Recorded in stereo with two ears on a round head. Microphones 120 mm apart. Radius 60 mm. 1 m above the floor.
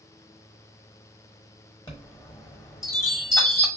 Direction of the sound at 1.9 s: 25° left (ahead or behind).